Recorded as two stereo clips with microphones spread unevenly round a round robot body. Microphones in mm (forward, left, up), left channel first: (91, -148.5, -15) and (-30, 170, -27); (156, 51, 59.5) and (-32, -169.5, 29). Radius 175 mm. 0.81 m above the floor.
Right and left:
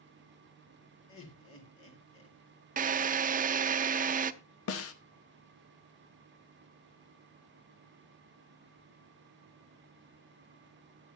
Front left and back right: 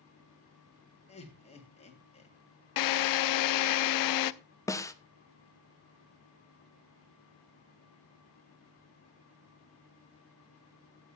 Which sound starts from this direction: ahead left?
A drill, at 2.8 s.